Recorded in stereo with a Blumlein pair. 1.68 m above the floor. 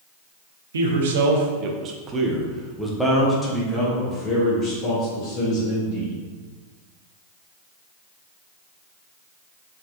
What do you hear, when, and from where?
0.7 s a man speaking: 65° right, 0.9 m; by 6.1 s 30° left, 2.5 m